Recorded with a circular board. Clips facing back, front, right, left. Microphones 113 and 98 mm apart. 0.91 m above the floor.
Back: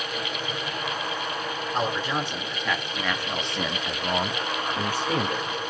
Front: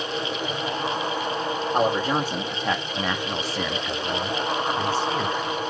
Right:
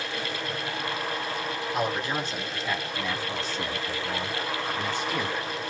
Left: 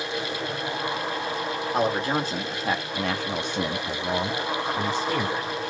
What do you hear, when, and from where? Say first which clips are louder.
1.7 s a man speaking: front 5 dB, left 5 dB; 40° left, 1.3 m; by 5.7 s 160° left, 1.2 m